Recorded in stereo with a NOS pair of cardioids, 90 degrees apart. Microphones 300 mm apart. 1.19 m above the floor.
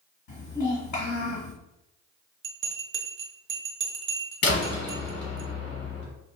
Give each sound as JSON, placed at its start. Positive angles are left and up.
{"t": 0.3, "sound": "a child speaking", "azimuth_deg": 55, "distance_m": 1.2}
{"t": 2.4, "sound": "a bell", "azimuth_deg": -40, "distance_m": 0.7}
{"t": 4.4, "sound": "a door slam", "azimuth_deg": 55, "distance_m": 1.2}